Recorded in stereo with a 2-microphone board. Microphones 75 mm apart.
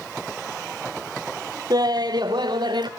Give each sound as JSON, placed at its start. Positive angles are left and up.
{"t": 1.7, "sound": "laughter", "side_deg": -60, "distance_m": 1.1}